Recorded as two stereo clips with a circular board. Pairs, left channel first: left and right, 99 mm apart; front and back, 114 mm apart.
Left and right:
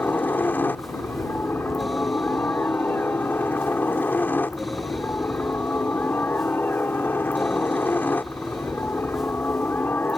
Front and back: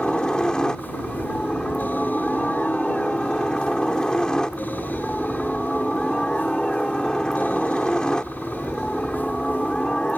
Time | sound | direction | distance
0.0 | a helicopter | 70° left | ?